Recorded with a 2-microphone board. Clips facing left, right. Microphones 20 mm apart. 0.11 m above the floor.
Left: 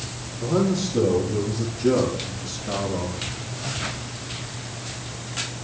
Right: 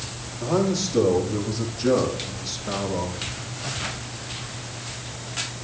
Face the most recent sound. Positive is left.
turn(degrees=-25)  # may be behind; listen again after turning